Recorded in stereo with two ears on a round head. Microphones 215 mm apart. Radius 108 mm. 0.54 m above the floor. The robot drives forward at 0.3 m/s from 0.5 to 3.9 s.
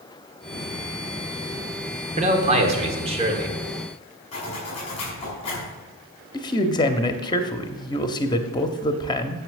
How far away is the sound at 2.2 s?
About 1.6 m.